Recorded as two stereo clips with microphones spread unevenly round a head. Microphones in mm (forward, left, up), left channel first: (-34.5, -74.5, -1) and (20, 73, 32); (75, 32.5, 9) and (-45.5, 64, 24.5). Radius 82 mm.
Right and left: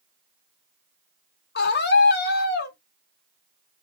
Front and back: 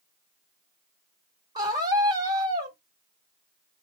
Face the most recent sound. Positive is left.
turn(degrees=-125)